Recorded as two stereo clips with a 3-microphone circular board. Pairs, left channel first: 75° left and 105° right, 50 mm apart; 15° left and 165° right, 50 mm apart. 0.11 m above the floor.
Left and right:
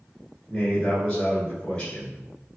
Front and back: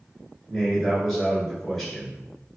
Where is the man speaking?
105° left, 1.5 m.